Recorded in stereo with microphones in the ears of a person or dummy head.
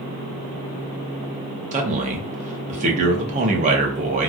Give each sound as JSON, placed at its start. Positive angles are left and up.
{"t": 1.7, "sound": "a man speaking", "side_deg": -45, "distance_m": 1.0}